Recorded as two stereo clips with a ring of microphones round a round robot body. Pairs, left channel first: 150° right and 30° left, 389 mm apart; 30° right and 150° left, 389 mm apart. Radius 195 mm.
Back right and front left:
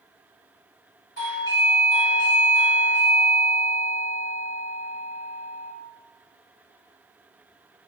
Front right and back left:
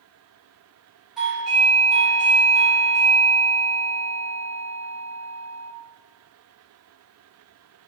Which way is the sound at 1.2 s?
125° right.